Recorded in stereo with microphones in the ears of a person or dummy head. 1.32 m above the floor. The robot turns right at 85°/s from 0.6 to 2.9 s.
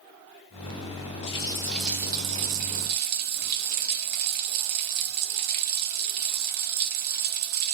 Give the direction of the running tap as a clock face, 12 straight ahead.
8 o'clock.